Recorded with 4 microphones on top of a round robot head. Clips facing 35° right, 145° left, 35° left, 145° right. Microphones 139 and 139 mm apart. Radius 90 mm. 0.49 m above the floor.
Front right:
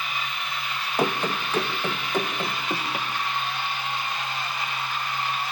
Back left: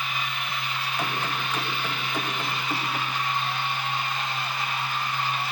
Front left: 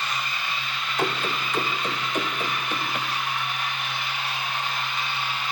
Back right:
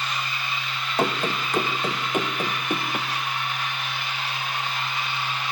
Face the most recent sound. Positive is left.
turn(degrees=-110)